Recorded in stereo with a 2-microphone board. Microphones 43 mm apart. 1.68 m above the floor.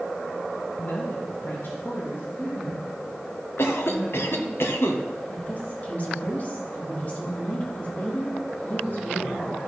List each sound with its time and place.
0.8 s a woman speaking: 65° left (ahead or behind), 1.6 m; by 4.5 s 55° left (ahead or behind), 4.5 m
3.6 s a cough: 70° left (ahead or behind), 1.5 m
5.3 s a woman speaking: 35° left (ahead or behind), 3.5 m